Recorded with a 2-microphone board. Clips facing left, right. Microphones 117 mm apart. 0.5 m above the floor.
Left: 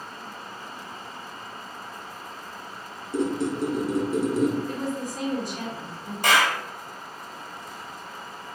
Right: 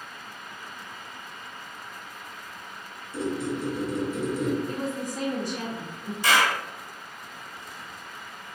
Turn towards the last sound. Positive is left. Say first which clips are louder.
# left 1 dB
turn(degrees=55)  # may be behind; listen again after turning